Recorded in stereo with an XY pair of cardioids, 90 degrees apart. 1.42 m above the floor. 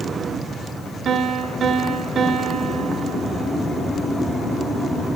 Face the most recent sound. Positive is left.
turn(degrees=-65)